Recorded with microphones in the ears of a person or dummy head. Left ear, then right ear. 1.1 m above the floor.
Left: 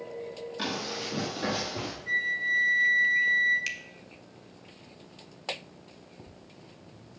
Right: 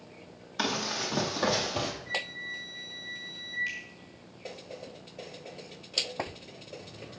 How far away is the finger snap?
About 1.4 m.